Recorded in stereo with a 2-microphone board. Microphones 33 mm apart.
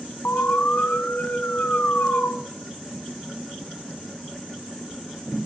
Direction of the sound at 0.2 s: 55° left (ahead or behind).